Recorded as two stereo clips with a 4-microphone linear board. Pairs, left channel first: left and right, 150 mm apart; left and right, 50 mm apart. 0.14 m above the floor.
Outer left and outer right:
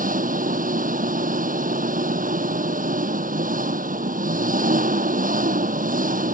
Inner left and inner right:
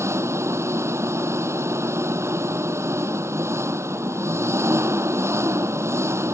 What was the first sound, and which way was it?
An engine running, 65° right (ahead or behind).